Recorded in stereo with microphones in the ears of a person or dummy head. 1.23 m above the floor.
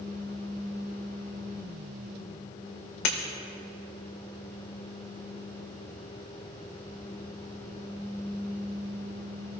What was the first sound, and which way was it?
Breaking glass, 55° left (ahead or behind).